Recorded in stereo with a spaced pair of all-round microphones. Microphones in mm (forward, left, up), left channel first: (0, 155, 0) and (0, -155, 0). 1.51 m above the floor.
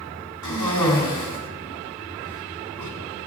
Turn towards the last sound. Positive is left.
turn(degrees=-75)  # may be behind; listen again after turning